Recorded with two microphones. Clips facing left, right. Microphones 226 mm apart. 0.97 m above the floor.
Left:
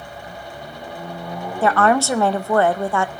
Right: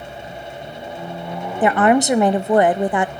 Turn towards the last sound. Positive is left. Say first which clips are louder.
# right 3 dB
turn(degrees=-20)  # may be behind; listen again after turning